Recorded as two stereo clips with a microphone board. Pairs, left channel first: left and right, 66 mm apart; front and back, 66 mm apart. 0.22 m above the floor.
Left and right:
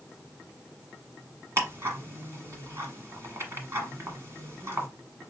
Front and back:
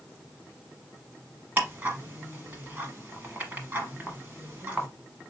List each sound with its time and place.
1.6 s ticking: 125° right, 1.2 m